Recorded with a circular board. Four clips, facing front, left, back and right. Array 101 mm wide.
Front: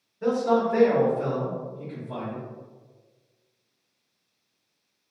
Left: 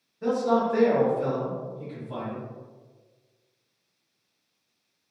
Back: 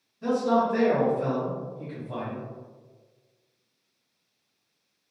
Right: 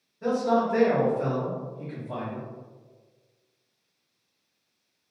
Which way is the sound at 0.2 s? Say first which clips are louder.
Even, front 1 dB; straight ahead.